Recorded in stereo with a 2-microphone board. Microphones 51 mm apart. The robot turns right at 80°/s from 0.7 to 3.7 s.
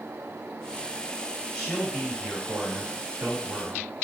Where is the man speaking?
155° left, 2 m; by 3.9 s 30° right, 2 m.